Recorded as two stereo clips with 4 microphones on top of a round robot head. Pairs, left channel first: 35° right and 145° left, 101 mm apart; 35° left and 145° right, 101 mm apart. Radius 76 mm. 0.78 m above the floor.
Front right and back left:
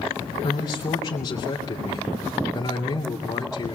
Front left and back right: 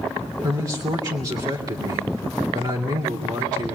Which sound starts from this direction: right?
A man speaking, at 0.4 s.